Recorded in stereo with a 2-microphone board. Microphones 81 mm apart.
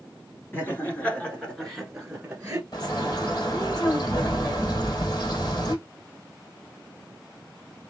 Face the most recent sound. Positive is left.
turn(degrees=50)  # may be behind; listen again after turning